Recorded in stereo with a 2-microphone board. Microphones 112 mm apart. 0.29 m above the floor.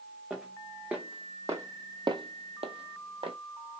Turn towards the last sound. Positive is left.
turn(degrees=-55)  # may be behind; listen again after turning